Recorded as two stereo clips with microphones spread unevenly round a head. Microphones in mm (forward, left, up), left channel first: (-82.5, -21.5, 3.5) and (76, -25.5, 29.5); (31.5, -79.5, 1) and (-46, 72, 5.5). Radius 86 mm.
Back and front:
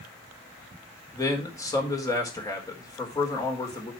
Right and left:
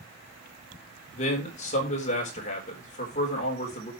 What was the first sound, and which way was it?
A man speaking, 110° right.